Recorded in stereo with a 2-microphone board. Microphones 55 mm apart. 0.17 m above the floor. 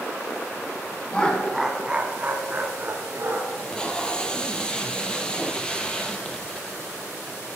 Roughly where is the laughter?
Centre.